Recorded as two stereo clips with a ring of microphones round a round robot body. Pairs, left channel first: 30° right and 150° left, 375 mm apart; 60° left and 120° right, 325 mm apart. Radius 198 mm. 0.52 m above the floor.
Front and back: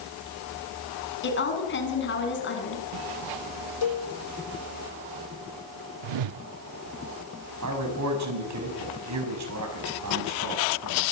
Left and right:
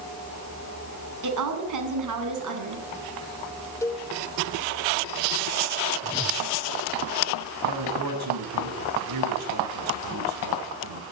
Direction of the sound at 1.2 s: 90° right.